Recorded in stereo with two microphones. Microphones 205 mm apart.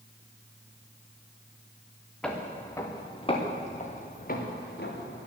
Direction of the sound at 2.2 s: 5° left (ahead or behind).